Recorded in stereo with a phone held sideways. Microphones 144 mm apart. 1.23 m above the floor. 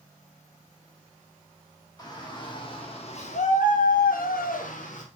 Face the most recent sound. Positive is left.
turn(degrees=55)  # may be behind; listen again after turning